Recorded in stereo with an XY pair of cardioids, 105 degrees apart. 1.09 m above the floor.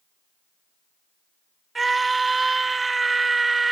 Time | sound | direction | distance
1.8 | a scream | 25° right | ?